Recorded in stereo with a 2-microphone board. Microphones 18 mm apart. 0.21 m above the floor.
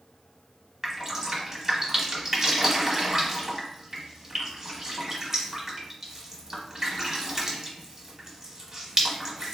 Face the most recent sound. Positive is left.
turn(degrees=-20)  # may be behind; listen again after turning